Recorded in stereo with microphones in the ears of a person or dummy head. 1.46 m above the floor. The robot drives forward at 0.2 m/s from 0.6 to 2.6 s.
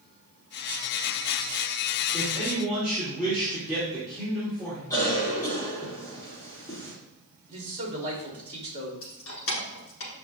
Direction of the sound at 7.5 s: 35° right (ahead or behind).